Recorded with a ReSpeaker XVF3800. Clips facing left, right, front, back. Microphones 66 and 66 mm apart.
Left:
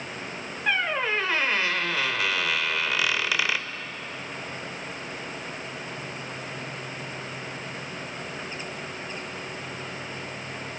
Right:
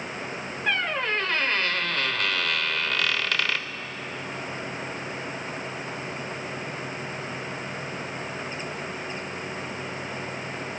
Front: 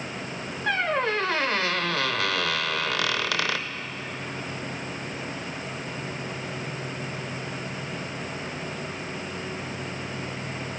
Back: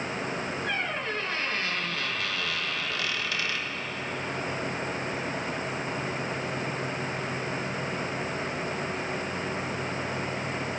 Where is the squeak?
10° left, 0.6 m.